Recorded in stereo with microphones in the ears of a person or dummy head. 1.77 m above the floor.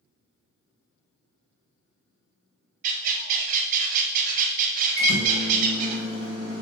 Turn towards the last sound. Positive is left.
turn(degrees=-65)  # may be behind; listen again after turning